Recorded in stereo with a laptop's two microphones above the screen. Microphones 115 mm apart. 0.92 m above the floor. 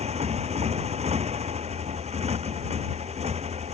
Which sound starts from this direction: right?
A motorcycle, at 0.0 s.